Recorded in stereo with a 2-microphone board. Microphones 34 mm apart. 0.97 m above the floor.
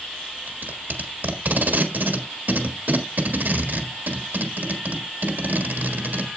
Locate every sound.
0.5 s tape being pulled: 60° right (ahead or behind), 1.5 m